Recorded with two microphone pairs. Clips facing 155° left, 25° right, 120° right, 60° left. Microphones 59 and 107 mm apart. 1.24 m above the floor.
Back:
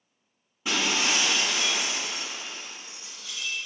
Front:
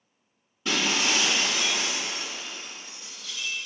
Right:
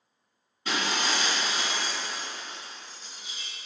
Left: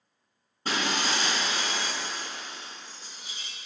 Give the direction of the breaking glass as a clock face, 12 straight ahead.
9 o'clock.